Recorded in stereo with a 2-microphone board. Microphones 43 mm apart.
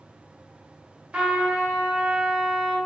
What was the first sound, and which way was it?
A trumpet, 20° right (ahead or behind).